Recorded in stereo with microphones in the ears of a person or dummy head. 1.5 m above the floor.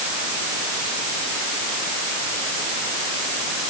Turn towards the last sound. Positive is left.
No sound to turn to.